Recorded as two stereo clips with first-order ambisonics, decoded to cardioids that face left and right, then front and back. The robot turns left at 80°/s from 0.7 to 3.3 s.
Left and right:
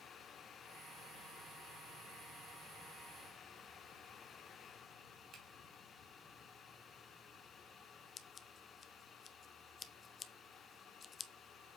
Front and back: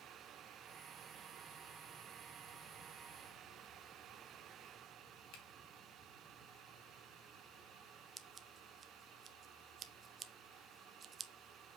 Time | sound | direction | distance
5.3 | a finger snap | 30° right | 3 m
8.2 | scissors | 140° left | 0.6 m